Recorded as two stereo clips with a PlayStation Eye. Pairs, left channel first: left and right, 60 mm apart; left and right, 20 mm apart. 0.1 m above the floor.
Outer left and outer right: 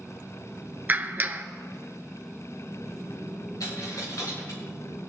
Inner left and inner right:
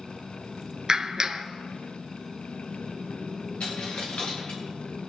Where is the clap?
35° right (ahead or behind), 1.0 m.